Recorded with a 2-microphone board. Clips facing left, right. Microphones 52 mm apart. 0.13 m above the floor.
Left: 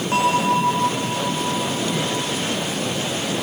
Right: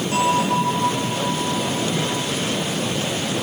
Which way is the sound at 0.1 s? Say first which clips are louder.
Left 1 dB; 40° left (ahead or behind).